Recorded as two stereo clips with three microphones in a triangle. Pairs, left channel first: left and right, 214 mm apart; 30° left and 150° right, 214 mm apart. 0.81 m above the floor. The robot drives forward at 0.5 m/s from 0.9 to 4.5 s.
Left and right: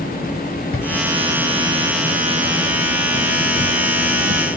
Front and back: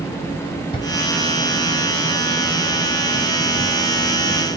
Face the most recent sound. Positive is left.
turn(degrees=130)